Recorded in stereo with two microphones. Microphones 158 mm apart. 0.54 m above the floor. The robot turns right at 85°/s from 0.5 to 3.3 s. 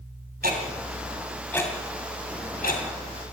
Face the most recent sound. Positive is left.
turn(degrees=20)  # may be behind; listen again after turning